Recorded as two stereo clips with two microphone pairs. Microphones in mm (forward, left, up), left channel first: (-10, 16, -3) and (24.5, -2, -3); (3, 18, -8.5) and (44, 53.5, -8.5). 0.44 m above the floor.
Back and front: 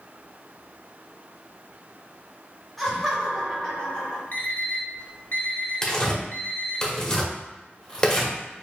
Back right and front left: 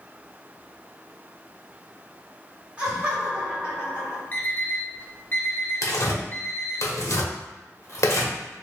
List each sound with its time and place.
2.8 s laughter: 75° left, 1.1 m; by 4.2 s 110° left, 1.6 m
4.3 s an alarm clock: 175° left, 0.7 m
5.8 s tearing paper: 140° right, 0.8 m